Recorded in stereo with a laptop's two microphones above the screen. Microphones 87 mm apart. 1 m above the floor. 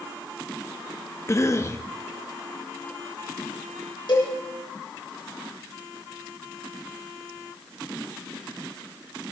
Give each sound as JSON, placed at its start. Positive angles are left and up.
{"t": 1.3, "sound": "a cough", "side_deg": 35, "distance_m": 0.9}
{"t": 4.1, "sound": "a cowbell", "side_deg": 70, "distance_m": 5.5}